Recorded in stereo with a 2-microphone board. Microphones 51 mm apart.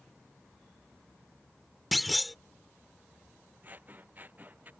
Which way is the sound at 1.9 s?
Centre (ahead or behind).